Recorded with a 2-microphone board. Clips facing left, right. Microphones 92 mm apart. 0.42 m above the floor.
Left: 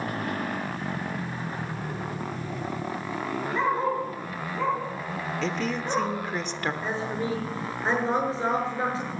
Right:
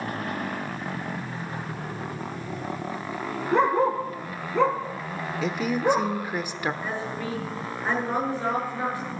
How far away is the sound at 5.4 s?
About 0.9 m.